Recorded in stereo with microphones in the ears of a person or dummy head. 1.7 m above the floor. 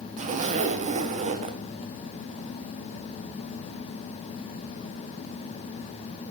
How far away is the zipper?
About 0.9 m.